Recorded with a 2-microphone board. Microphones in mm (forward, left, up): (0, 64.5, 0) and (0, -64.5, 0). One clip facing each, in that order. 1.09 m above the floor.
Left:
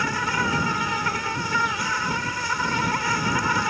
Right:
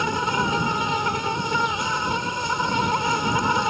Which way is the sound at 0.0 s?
20° right (ahead or behind).